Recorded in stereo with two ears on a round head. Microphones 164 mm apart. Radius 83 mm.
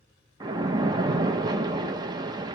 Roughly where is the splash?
Right.